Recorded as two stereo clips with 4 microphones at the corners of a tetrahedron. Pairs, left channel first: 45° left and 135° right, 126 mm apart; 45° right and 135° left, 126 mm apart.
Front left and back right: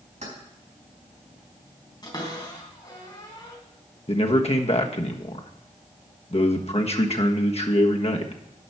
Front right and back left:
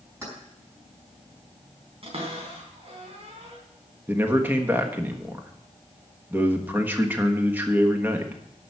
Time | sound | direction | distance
0.2 | keys jangling | 155° right | 4.5 m
2.0 | a cupboard door | 100° left | 3 m
4.1 | a man speaking | 65° left | 1.3 m